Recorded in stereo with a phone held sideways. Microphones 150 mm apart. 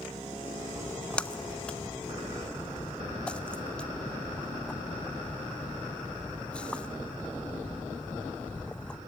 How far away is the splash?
About 0.6 m.